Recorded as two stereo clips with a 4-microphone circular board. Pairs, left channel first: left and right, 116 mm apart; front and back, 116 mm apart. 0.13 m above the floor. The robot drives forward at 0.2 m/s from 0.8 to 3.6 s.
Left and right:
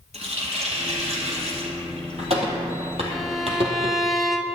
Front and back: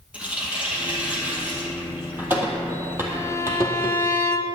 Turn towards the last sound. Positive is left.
turn(degrees=0)